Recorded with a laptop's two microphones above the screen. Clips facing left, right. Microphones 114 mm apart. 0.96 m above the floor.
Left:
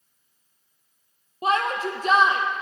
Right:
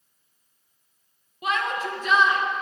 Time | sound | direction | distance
1.4 | a shout | 40° left (ahead or behind) | 0.5 m